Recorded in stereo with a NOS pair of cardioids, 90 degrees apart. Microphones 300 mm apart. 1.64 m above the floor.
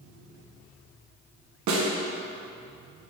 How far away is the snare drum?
About 1.3 m.